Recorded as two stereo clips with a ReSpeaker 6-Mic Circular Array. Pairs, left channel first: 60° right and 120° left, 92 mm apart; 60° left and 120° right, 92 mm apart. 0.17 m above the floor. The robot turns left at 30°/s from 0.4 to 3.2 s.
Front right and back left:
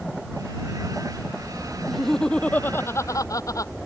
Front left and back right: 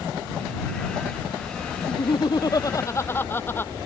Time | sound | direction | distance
1.9 | laughter | 35° left | ?